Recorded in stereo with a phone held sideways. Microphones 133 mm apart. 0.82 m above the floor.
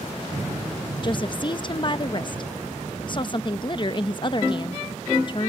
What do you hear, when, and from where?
1.0 s a woman speaking: 35° left (ahead or behind)